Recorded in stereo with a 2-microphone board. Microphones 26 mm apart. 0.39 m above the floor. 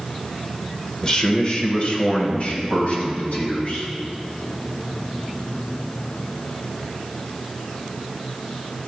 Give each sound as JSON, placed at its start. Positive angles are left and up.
{"t": 1.0, "sound": "a man speaking", "side_deg": 30, "distance_m": 0.8}